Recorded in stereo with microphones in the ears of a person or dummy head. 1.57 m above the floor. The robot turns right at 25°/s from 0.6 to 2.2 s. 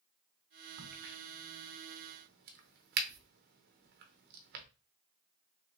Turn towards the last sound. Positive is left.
turn(degrees=-55)  # may be behind; listen again after turning